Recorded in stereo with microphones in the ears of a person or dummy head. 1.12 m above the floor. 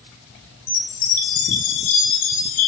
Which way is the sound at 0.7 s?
45° left (ahead or behind).